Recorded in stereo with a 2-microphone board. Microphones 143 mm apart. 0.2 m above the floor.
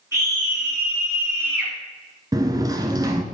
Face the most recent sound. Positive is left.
turn(degrees=-25)  # may be behind; listen again after turning